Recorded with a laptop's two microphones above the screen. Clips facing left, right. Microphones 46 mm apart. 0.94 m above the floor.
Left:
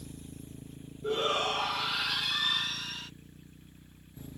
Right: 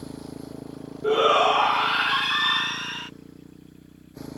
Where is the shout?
50° right (ahead or behind).